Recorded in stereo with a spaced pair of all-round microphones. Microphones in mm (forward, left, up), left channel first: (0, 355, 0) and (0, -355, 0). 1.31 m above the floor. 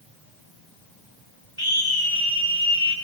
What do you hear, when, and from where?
1.6 s a scream: 45° right (ahead or behind), 8 m; by 2.9 s 40° right (ahead or behind), 9 m